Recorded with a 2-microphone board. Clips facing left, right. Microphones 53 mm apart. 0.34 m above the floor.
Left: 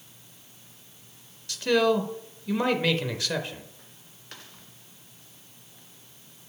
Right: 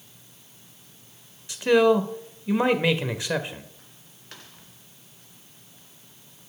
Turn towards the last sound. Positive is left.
turn(degrees=-20)  # may be behind; listen again after turning